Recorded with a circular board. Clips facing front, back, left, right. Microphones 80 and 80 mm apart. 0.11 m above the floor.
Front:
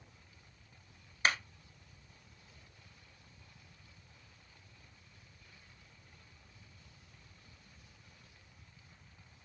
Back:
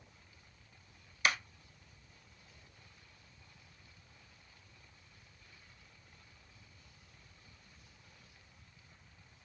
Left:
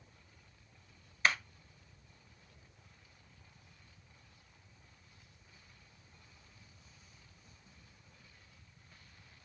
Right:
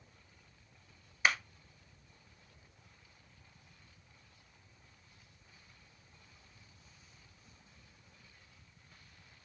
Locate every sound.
1.2 s a clap: 20° right, 1.3 m